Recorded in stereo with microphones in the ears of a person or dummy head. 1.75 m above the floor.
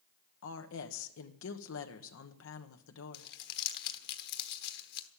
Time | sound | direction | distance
0.4 | a woman speaking | 75° left (ahead or behind) | 1.3 m
3.1 | crumpling | 60° left (ahead or behind) | 1.4 m